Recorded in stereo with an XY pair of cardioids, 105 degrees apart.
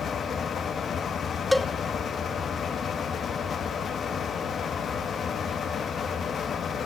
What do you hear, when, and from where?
0.0 s a fan: 50° left, 1.8 m
1.5 s a cowbell: 5° left, 0.5 m